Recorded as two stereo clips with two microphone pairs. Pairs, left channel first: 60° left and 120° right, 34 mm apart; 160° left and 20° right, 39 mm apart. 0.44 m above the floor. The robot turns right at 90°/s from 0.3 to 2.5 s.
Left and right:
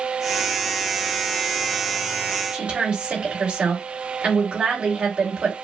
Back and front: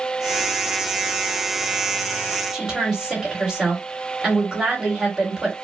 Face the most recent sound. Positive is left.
turn(degrees=-90)